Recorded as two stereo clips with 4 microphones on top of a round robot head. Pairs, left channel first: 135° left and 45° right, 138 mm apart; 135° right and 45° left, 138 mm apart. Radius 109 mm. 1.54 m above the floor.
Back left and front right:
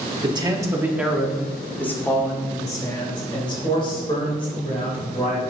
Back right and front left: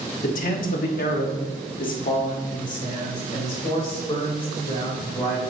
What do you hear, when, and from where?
0.2 s a man speaking: 105° right, 1.2 m; by 5.4 s straight behind, 3.5 m